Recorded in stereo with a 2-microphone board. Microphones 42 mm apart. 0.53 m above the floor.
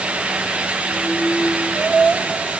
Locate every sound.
Only background noise.